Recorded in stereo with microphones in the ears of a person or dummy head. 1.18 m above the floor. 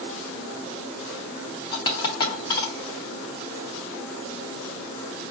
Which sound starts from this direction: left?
A dropped coin, at 1.7 s.